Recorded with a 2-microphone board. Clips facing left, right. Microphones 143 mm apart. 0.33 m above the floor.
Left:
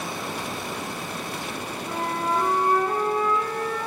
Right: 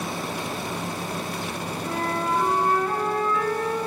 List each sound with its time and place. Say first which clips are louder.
1.8 s a flute: right 1 dB; 25° left (ahead or behind), 3 m